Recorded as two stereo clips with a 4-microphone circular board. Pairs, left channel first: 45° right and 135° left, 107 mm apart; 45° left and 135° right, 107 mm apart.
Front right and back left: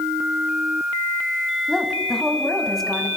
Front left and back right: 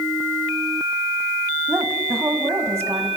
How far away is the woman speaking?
About 1.2 m.